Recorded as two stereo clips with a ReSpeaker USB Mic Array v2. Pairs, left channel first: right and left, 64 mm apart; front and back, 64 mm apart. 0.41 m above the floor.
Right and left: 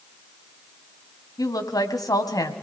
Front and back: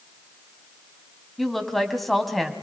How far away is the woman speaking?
About 3.5 m.